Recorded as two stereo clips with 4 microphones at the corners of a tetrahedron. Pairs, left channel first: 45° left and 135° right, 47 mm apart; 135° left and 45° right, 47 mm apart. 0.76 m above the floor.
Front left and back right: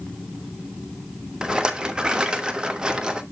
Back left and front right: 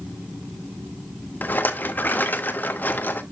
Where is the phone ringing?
No phone ringing in this recording.